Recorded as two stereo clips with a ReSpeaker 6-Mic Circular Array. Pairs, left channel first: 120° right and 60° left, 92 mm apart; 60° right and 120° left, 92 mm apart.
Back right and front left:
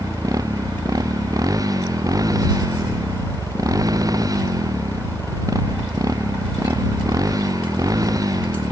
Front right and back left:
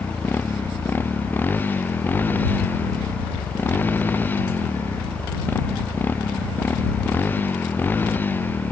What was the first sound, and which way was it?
A motorcycle, 10° left.